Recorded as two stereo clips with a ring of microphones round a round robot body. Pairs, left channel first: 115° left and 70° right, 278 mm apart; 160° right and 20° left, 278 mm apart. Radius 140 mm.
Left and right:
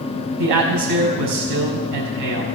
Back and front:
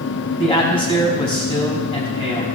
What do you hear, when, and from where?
0.4 s a man speaking: 85° right, 5 m